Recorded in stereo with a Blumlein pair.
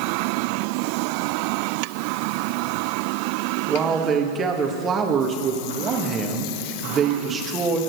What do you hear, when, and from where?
3.7 s a man speaking: 20° right, 2 m